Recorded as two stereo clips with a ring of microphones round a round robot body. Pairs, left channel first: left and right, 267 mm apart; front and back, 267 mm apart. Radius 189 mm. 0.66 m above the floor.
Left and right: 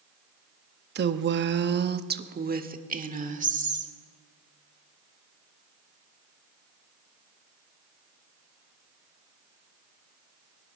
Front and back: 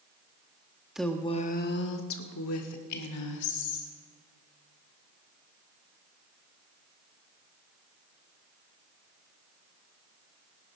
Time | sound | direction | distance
0.9 | a woman speaking | 95° right | 0.7 m